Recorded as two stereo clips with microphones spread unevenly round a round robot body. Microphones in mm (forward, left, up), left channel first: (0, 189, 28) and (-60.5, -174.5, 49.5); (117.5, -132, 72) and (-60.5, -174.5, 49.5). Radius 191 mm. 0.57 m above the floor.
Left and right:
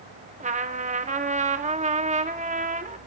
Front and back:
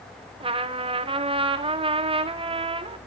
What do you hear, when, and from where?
0.4 s a trumpet: 165° right, 1.3 m